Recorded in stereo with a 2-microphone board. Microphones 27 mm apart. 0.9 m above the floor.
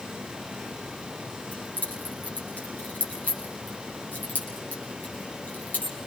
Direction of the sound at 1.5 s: 70° left (ahead or behind).